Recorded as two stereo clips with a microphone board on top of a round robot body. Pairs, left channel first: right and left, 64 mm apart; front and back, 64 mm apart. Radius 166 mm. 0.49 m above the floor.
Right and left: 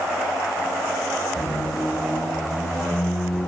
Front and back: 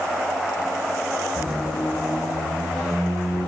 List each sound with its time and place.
1.4 s a squeak: 55° right, 1.1 m